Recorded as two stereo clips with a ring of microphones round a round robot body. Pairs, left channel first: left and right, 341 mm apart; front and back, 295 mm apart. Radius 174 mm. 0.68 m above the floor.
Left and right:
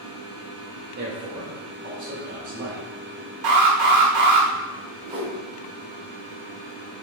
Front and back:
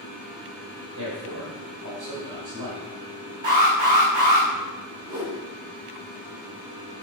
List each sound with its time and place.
1.0 s a man speaking: 135° right, 2.5 m
3.4 s an alarm: 115° right, 1.9 m
5.0 s a whoosh: 100° right, 2 m